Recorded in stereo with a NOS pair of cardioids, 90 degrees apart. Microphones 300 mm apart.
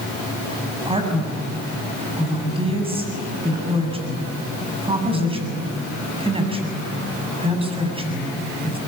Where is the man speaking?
20° right, 8 m.